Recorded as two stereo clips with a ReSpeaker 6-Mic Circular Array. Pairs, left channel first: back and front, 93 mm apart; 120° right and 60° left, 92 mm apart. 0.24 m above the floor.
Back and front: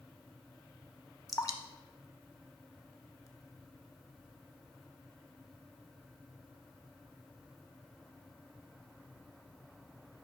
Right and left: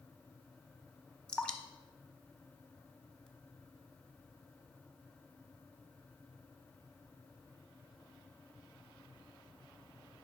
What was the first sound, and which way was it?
Dripping, 165° left.